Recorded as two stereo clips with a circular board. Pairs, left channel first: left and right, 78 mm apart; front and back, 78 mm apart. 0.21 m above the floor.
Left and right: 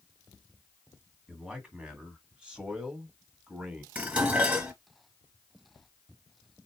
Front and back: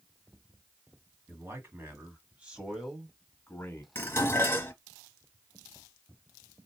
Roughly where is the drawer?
I don't hear a drawer.